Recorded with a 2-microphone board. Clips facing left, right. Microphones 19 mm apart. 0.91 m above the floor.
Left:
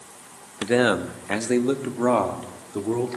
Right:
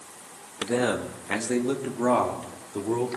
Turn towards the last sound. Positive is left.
turn(degrees=5)  # may be behind; listen again after turning